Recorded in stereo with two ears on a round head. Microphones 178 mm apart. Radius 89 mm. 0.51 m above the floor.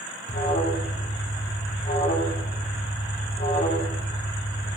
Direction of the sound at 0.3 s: 35° left (ahead or behind).